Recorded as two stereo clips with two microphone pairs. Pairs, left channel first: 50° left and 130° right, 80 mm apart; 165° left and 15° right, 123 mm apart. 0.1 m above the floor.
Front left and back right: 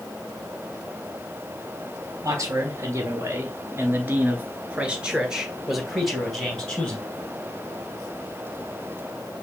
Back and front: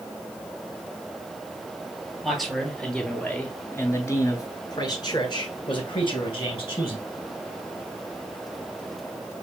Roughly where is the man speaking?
Right.